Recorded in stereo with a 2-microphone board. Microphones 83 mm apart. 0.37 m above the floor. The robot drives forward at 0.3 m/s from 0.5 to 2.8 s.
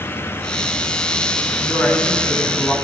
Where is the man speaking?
40° left (ahead or behind), 3.5 m.